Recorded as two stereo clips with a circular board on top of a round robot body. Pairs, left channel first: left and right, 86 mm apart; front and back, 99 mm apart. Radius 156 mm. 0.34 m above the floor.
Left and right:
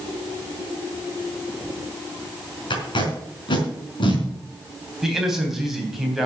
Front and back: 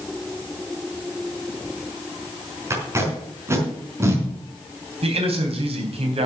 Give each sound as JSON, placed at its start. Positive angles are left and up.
{"t": 2.7, "sound": "tape being pulled", "azimuth_deg": 115, "distance_m": 4.0}
{"t": 5.0, "sound": "a man speaking", "azimuth_deg": -175, "distance_m": 3.5}